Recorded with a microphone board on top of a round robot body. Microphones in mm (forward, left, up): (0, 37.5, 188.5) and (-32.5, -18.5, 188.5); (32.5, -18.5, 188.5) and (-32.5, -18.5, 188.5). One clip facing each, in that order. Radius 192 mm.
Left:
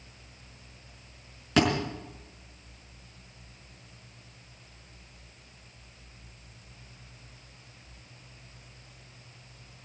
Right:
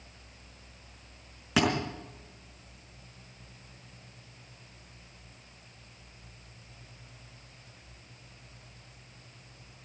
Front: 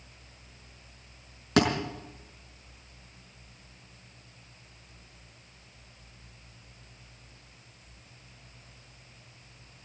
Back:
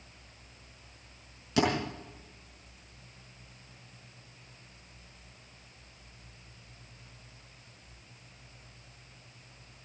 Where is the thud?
35° right, 5 m.